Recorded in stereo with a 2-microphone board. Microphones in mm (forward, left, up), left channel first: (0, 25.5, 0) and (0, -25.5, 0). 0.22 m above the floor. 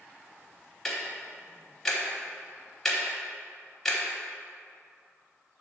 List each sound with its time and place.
0.8 s ticking: 5° left (ahead or behind), 1.2 m